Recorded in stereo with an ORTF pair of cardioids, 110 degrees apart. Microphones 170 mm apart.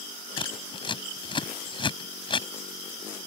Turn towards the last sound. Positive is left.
turn(degrees=30)